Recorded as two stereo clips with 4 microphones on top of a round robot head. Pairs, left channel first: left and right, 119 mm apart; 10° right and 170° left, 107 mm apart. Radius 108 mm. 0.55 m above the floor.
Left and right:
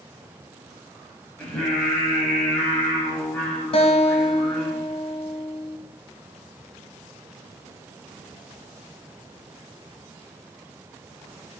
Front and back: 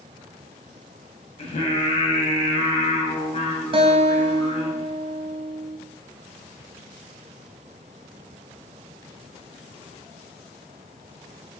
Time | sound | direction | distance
1.4 | singing | 10° left | 2.5 m
3.7 | a guitar | 130° left | 1.0 m